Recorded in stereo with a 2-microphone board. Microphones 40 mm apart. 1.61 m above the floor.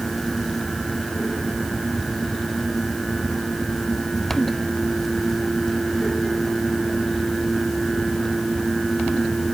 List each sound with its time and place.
Only background noise.